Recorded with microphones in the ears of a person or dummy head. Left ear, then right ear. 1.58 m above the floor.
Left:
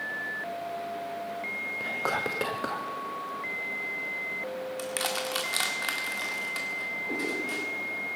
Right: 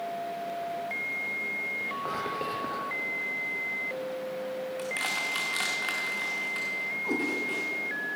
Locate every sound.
1.8 s whispering: 45° left (ahead or behind), 0.7 m
4.8 s crushing: 20° left (ahead or behind), 1.6 m
7.0 s a cat meowing: 70° right (ahead or behind), 4.5 m